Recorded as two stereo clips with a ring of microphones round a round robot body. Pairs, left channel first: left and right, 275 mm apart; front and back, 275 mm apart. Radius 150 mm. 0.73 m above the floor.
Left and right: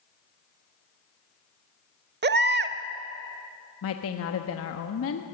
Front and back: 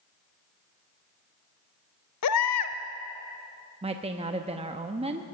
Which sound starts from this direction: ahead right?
A baby crying, at 2.2 s.